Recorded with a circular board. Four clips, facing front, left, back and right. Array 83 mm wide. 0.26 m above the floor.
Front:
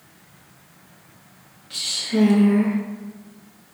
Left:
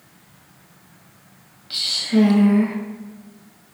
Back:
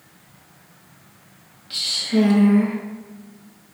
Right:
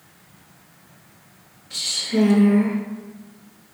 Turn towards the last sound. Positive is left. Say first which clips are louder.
# left 4 dB, back 3 dB
turn(degrees=105)